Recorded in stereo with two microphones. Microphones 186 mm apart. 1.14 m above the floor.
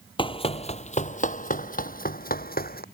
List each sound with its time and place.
0.2 s running footsteps: 25° left (ahead or behind); by 2.8 s 55° left (ahead or behind)